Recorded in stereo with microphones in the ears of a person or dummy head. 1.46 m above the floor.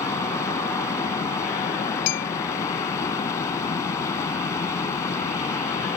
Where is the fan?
20° left (ahead or behind).